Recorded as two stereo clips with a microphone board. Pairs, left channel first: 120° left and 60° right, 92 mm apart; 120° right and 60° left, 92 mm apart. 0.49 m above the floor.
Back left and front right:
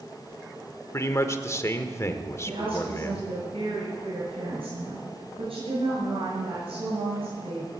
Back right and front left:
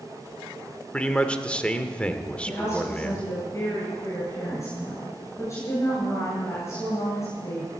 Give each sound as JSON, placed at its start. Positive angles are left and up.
{"t": 0.9, "sound": "a man speaking", "azimuth_deg": 165, "distance_m": 1.1}
{"t": 2.5, "sound": "a woman speaking", "azimuth_deg": -60, "distance_m": 8.5}